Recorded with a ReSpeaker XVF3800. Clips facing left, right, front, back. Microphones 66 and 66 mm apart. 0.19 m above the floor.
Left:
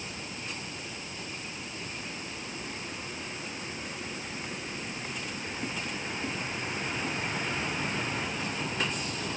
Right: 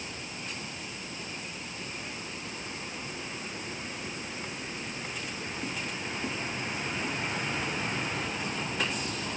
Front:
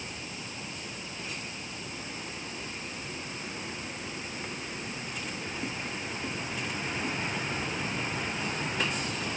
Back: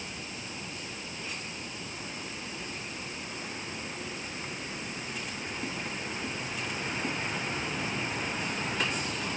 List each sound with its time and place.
Only background noise.